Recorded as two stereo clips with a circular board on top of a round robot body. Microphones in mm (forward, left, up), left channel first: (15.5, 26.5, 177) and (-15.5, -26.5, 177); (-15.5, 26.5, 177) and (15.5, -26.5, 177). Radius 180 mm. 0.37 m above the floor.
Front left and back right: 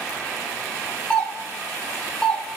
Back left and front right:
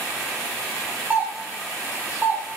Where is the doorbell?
10° right, 2.5 m.